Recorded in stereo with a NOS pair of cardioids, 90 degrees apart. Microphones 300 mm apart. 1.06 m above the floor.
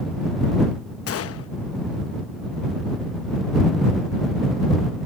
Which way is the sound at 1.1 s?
50° left.